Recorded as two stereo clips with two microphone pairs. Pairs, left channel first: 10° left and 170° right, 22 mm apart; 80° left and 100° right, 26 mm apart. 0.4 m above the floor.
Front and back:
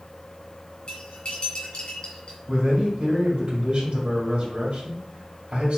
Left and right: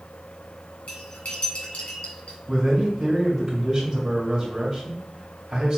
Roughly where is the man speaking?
Behind right.